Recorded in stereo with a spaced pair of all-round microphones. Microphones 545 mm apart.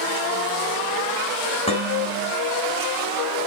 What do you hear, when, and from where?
1.7 s dishes clattering: 10° left (ahead or behind), 4.5 m